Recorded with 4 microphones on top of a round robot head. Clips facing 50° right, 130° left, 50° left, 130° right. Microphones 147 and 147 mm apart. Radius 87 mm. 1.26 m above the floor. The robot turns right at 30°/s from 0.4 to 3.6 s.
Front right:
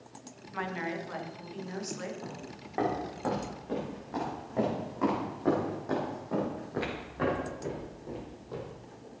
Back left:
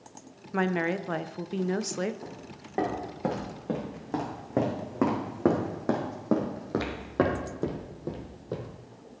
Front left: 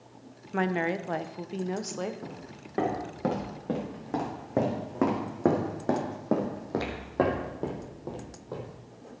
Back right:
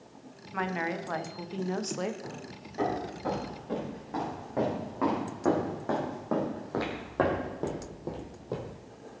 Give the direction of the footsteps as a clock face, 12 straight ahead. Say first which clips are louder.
Even, even; 11 o'clock.